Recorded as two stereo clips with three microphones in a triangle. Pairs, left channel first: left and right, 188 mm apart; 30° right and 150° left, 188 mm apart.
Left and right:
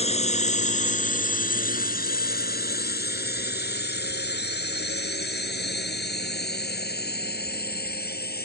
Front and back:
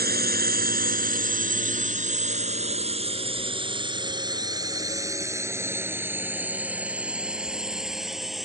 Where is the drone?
140° left; by 8.5 s 60° left.